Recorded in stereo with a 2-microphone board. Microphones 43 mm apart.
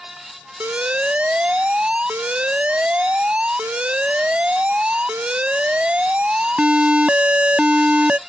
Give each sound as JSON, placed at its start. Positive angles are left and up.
{"t": 0.6, "sound": "an alarm", "side_deg": -30}